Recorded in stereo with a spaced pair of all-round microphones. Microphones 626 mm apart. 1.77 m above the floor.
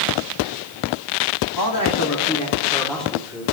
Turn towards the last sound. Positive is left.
turn(degrees=-5)  # may be behind; listen again after turning